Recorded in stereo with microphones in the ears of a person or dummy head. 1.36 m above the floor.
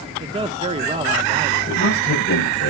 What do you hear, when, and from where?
0.2 s a man speaking: 20° right (ahead or behind), 0.9 m
1.7 s a man speaking: 45° left (ahead or behind), 8.5 m